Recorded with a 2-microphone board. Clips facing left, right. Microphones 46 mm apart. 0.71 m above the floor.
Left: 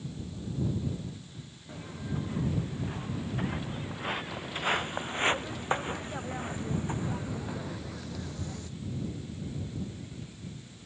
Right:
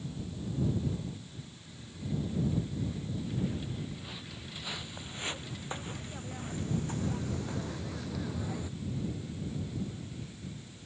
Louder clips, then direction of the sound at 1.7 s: Left 2 dB; 60° left (ahead or behind).